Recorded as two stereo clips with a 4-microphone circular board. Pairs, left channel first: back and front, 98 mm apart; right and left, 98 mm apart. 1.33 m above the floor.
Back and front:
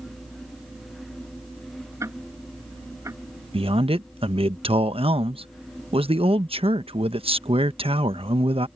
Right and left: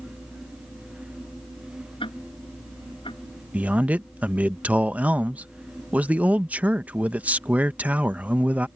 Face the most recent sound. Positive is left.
turn(degrees=15)